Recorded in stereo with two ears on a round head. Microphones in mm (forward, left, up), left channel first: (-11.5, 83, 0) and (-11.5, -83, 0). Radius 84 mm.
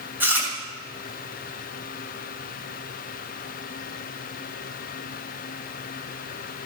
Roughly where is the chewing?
Centre.